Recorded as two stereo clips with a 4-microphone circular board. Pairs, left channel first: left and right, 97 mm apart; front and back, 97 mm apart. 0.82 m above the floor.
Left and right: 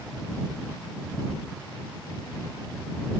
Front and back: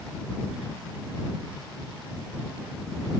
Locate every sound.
Only background noise.